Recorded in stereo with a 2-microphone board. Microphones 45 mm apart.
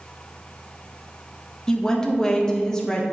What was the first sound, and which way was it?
A woman speaking, 15° left (ahead or behind).